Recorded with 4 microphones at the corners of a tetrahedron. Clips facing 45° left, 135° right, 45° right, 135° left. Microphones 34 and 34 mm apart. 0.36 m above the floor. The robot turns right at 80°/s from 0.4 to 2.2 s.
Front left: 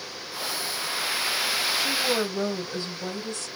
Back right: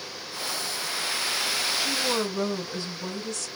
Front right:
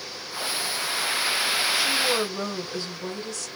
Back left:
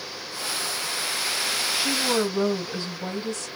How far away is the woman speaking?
About 2.5 m.